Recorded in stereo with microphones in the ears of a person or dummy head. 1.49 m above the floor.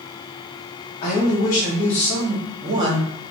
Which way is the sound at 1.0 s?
35° left (ahead or behind).